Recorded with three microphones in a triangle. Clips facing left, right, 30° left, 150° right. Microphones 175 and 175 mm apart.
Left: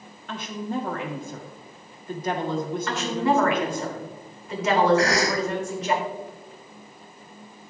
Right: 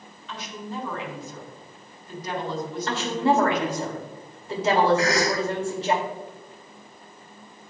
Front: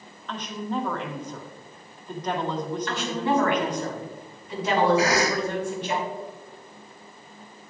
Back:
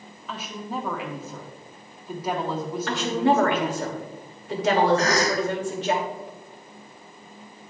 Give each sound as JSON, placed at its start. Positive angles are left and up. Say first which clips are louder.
{"t": 0.3, "sound": "a woman speaking", "louder": "left 5 dB, front 3 dB", "azimuth_deg": 125, "distance_m": 1.6}
{"t": 2.9, "sound": "a woman speaking", "louder": "right 2 dB, back 6 dB", "azimuth_deg": -150, "distance_m": 2.5}
{"t": 5.0, "sound": "a cough", "louder": "left 1 dB, even", "azimuth_deg": 110, "distance_m": 1.9}